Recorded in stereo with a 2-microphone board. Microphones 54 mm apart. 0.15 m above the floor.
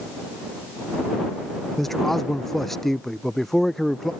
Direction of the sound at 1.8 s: 5° left (ahead or behind).